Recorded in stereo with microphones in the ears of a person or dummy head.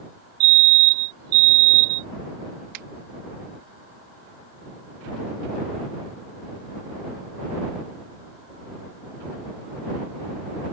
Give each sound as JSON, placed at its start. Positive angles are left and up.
{"t": 0.4, "sound": "a fire alarm", "side_deg": -50}
{"t": 2.7, "sound": "a finger snap", "side_deg": -55}